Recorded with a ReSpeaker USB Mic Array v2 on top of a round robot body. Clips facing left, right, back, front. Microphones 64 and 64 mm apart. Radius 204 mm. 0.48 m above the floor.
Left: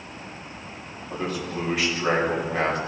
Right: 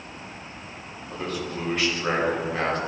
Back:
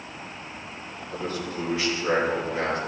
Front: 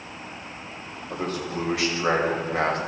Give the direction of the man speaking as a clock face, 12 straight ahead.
12 o'clock.